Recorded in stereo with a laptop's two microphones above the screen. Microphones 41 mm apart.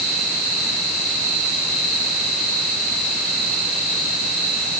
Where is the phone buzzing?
I don't hear a phone buzzing.